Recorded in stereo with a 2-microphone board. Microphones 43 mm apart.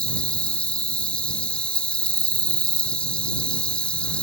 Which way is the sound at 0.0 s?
30° left (ahead or behind).